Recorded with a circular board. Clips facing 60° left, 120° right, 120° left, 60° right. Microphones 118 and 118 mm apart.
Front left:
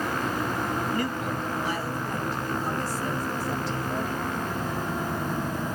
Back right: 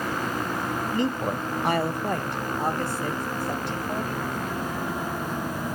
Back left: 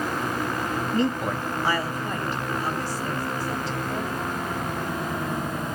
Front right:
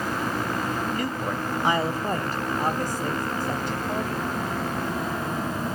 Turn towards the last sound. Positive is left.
turn(degrees=-90)